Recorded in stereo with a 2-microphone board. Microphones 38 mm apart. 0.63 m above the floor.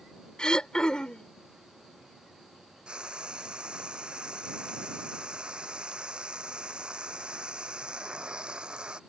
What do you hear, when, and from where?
0.4 s throat clearing: 30° left (ahead or behind)
2.9 s frying: 30° right (ahead or behind)